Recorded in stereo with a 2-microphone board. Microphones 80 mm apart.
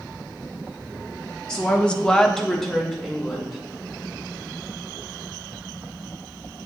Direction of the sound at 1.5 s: 10° left (ahead or behind).